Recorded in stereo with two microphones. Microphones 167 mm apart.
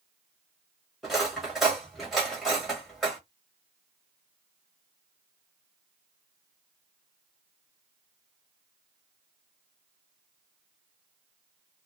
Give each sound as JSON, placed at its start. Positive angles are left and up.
{"t": 1.0, "sound": "cutlery clinking", "side_deg": 0, "distance_m": 1.2}